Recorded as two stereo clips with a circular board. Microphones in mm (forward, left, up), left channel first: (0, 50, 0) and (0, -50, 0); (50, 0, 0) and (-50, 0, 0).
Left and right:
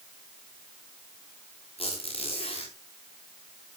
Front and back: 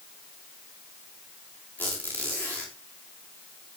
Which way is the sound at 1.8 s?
75° left.